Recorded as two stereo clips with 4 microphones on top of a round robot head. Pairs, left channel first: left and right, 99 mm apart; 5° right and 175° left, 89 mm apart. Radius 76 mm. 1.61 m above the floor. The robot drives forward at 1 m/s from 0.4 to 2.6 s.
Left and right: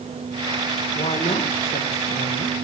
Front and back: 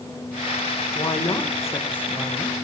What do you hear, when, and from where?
0.9 s a woman speaking: 40° left, 2 m; by 2.6 s 90° left, 1.5 m